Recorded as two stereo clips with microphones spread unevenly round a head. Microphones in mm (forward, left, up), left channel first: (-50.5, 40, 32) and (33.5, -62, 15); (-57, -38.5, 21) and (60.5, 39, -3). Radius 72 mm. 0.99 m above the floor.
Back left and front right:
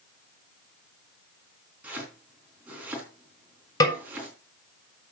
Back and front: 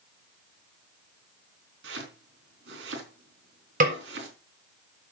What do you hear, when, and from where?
1.8 s chopping: 30° left, 4 m
3.8 s a snare drum: 65° left, 3.5 m